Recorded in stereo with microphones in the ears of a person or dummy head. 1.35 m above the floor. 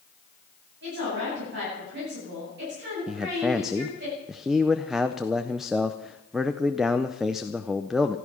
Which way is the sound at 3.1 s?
Centre (ahead or behind).